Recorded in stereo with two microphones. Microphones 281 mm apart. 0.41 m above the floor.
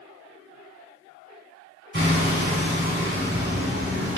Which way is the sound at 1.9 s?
35° right (ahead or behind).